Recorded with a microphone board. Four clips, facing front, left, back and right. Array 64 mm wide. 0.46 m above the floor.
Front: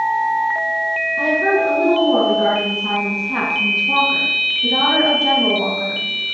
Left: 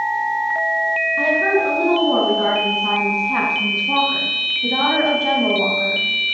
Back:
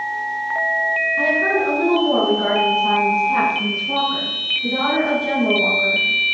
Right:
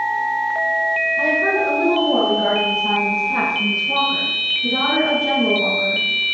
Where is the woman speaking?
95° left, 5 m; by 6.4 s 45° left, 2.5 m.